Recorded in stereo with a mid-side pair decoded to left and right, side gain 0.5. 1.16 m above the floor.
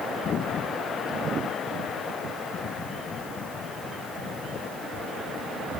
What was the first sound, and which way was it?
Only background noise.